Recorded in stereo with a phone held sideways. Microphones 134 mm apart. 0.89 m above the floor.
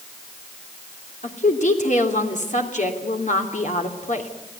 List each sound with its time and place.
1.2 s a woman speaking: 60° left (ahead or behind), 3 m